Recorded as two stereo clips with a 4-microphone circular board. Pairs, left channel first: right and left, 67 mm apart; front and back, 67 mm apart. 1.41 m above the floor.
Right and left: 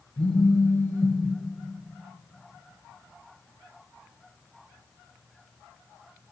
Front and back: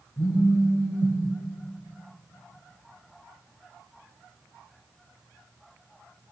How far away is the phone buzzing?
About 1.0 m.